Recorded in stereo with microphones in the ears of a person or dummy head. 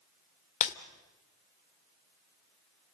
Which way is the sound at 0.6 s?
40° left (ahead or behind).